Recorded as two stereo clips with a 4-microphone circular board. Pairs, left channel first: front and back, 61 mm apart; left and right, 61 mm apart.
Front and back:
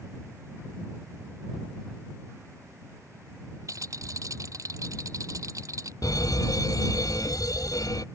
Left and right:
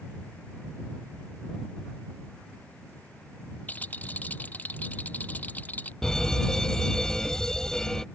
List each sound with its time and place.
3.7 s a rattle: 155° left
6.0 s an alarm: 10° left